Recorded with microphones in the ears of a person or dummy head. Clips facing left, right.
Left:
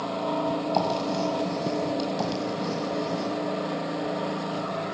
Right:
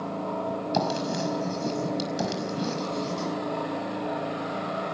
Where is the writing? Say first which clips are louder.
Left 1 dB; 20° right (ahead or behind), 5 m.